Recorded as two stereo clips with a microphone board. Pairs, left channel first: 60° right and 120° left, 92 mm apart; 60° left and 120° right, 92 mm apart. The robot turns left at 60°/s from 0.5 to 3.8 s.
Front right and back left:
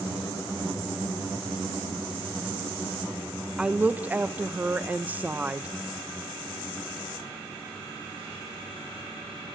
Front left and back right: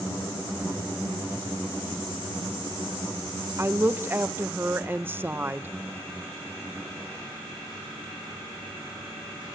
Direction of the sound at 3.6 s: 160° right.